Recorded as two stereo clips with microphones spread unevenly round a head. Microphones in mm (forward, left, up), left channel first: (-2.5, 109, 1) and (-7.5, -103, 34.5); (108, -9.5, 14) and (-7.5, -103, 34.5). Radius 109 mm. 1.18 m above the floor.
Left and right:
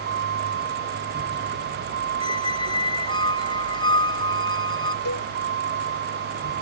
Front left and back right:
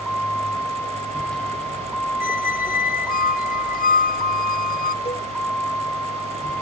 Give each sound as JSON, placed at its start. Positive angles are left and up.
{"t": 0.0, "sound": "a vehicle", "azimuth_deg": -45}
{"t": 2.2, "sound": "a squeak", "azimuth_deg": 15}
{"t": 5.0, "sound": "a cowbell", "azimuth_deg": 100}